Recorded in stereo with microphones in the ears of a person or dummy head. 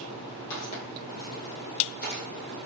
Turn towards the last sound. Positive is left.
turn(degrees=55)  # may be behind; listen again after turning